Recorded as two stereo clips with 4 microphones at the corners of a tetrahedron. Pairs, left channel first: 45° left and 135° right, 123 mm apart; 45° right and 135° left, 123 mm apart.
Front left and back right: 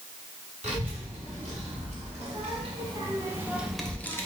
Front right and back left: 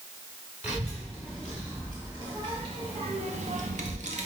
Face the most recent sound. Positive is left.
turn(degrees=110)